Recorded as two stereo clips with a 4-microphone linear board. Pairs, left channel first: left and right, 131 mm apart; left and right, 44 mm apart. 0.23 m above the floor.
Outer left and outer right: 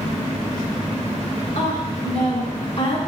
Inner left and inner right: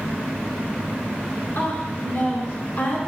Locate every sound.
1.6 s a woman speaking: 60° left (ahead or behind), 3 m; by 3.0 s 50° left (ahead or behind), 2.5 m